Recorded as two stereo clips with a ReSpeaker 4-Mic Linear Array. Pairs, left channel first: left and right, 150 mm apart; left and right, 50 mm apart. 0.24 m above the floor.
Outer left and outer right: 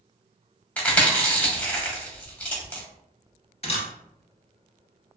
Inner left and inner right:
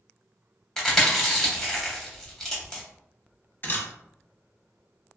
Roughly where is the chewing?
Centre.